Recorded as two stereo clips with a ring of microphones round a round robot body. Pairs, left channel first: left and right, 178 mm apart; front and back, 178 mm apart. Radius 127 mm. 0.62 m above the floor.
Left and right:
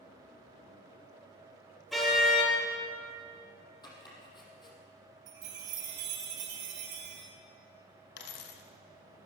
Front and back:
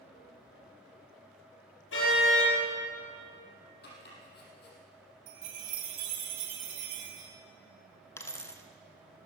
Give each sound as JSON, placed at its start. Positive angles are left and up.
{"t": 1.9, "sound": "a car horn", "azimuth_deg": 0, "distance_m": 6.0}
{"t": 3.8, "sound": "chopping", "azimuth_deg": 25, "distance_m": 4.5}
{"t": 5.3, "sound": "a chime", "azimuth_deg": -140, "distance_m": 1.9}
{"t": 8.2, "sound": "a dropped coin", "azimuth_deg": 75, "distance_m": 1.8}